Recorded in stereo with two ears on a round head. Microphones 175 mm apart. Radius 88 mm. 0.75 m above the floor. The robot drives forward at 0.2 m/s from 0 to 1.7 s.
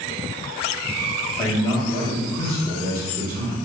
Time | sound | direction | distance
1.4 | a man speaking | 25° left (ahead or behind) | 1.4 m